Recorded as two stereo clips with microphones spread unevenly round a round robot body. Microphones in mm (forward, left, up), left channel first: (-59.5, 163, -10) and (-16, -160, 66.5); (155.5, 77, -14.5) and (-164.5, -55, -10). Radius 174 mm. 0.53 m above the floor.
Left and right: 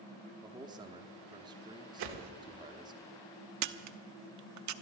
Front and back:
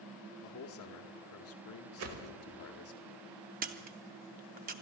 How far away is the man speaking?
About 0.9 m.